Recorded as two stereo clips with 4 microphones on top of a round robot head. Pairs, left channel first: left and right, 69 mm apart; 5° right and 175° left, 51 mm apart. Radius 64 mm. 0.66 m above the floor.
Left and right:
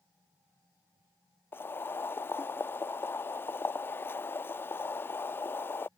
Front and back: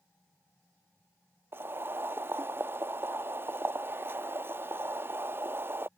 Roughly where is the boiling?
Behind left.